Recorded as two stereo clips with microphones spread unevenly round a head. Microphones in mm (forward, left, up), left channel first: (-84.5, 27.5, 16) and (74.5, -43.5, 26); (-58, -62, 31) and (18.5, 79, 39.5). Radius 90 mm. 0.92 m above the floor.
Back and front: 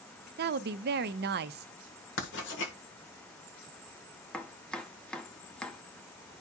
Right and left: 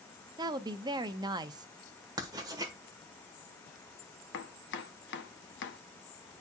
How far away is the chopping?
About 0.8 m.